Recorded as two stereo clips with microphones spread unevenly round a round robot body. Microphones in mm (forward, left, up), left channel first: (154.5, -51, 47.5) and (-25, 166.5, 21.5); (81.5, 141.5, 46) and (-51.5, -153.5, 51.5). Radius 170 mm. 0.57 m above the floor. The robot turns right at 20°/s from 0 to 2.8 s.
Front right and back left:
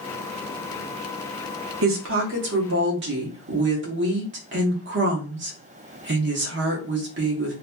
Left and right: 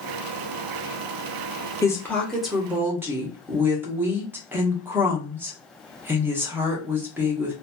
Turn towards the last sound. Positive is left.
turn(degrees=165)